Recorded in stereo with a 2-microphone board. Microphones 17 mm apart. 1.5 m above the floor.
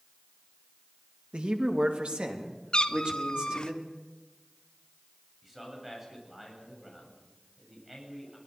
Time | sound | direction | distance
1.3 | a man speaking | 80° right | 2.5 m
2.7 | a cat meowing | 50° left (ahead or behind) | 1.0 m
5.4 | a man speaking | 10° right (ahead or behind) | 8 m